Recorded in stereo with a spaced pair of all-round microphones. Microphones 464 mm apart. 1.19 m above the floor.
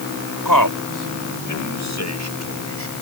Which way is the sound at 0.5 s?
50° left (ahead or behind).